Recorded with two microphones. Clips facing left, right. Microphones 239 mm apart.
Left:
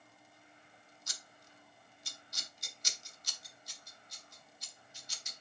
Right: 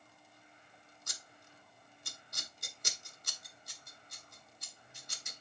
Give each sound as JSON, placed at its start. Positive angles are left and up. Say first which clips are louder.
{"t": 1.1, "sound": "scissors", "louder": "right 3 dB", "side_deg": -55, "distance_m": 0.9}